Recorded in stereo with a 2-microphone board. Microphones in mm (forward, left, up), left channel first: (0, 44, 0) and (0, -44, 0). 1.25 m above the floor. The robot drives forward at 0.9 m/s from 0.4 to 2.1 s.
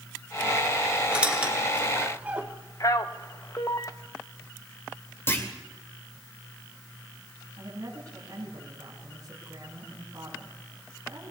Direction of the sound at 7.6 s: 45° right (ahead or behind).